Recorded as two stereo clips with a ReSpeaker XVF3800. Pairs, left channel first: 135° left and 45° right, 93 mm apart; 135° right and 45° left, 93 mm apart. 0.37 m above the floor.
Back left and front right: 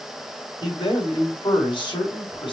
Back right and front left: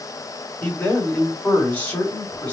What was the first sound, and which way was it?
A man speaking, 150° left.